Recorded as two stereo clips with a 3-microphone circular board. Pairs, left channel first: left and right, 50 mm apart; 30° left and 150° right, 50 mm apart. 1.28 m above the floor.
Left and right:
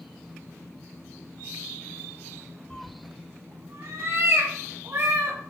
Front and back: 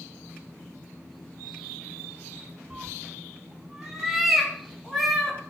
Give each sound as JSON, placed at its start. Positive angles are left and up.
{"t": 2.7, "sound": "a cat meowing", "azimuth_deg": 160, "distance_m": 0.5}